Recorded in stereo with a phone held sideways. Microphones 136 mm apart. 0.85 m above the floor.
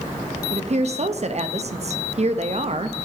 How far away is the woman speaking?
About 0.5 m.